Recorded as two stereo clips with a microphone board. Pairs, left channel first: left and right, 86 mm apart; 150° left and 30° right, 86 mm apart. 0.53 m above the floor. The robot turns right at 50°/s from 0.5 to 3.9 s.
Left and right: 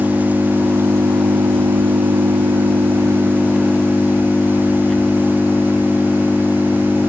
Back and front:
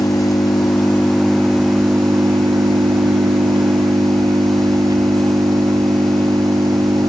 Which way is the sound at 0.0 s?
165° right.